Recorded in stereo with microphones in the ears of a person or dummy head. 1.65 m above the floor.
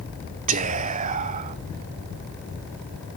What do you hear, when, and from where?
0.5 s whispering: 40° right (ahead or behind), 0.9 m